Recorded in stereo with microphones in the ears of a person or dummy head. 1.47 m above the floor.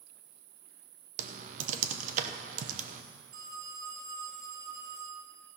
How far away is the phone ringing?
About 2.5 m.